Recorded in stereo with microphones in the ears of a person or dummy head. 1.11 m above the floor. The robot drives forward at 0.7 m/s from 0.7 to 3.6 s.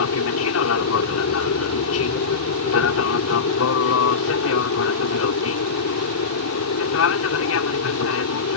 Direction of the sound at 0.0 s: 70° left (ahead or behind).